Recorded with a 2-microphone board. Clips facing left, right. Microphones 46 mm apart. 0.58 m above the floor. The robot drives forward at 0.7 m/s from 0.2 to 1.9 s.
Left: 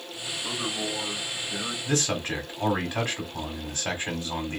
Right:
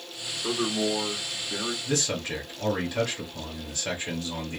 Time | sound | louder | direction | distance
0.4 | a man speaking | right 5 dB | 55° right (ahead or behind) | 1.3 m
1.9 | a man speaking | left 4 dB | 35° left (ahead or behind) | 1.8 m